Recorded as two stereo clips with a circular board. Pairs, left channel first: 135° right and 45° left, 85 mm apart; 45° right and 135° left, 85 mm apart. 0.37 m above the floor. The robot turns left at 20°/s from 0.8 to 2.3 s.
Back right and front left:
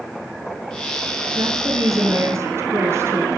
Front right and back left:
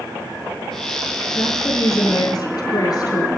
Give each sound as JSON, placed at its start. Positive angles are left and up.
{"t": 1.4, "sound": "a woman speaking", "azimuth_deg": 10, "distance_m": 6.5}